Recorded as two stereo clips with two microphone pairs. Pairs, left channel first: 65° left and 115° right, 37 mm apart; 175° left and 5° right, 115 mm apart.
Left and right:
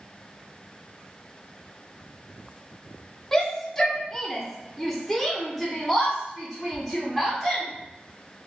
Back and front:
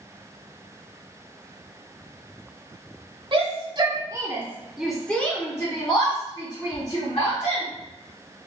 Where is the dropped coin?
I don't hear a dropped coin.